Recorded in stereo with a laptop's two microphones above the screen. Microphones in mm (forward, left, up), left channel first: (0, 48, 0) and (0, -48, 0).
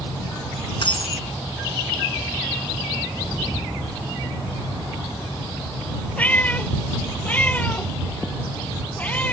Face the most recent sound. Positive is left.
turn(degrees=15)  # may be behind; listen again after turning